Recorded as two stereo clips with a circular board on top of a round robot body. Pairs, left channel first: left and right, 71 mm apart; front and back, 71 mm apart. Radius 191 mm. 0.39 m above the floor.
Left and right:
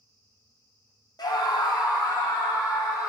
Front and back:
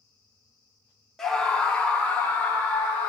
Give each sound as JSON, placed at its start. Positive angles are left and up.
{"t": 1.2, "sound": "a scream", "azimuth_deg": 85, "distance_m": 1.6}